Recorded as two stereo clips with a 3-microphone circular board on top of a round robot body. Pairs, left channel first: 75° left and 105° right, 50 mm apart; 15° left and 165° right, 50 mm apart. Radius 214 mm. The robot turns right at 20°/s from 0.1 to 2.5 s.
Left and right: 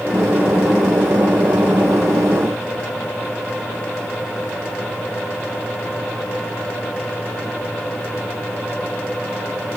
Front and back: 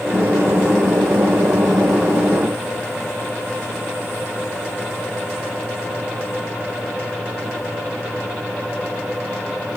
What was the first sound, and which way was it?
Only background noise.